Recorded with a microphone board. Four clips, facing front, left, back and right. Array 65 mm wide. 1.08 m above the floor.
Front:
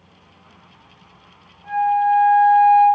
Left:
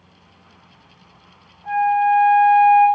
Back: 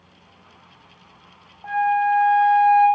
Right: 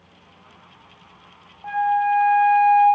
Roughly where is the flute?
Behind right.